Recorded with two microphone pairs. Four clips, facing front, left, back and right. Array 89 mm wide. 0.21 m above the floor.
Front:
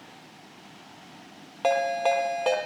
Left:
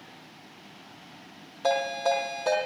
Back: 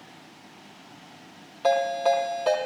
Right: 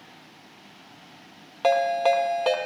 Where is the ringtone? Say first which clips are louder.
Right 5 dB, back 1 dB; 55° right, 4.5 m.